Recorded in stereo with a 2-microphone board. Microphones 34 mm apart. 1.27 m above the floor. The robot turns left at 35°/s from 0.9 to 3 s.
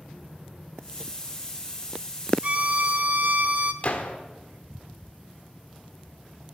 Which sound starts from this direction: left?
A gunshot, at 3.8 s.